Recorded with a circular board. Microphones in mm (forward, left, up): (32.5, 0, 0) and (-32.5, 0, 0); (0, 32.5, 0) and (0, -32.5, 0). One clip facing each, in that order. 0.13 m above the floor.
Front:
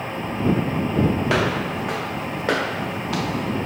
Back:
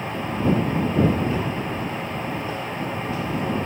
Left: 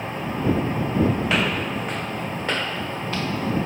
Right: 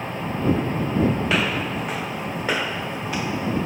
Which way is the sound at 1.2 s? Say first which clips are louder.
Front 4 dB, even; straight ahead.